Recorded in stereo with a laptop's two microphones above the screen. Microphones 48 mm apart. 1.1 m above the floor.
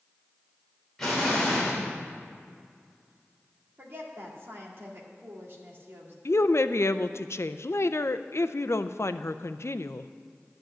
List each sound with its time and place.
1.0 s an explosion: 10° left (ahead or behind), 2.5 m
3.8 s a woman speaking: 50° right (ahead or behind), 2 m
6.2 s a woman speaking: 65° left (ahead or behind), 0.5 m